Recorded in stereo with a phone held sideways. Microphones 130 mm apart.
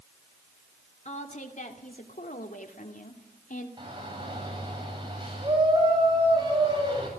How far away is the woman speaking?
About 2.5 m.